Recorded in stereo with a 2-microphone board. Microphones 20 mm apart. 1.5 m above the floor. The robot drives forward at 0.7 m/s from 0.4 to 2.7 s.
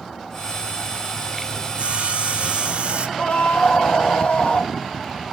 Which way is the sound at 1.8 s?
70° right (ahead or behind).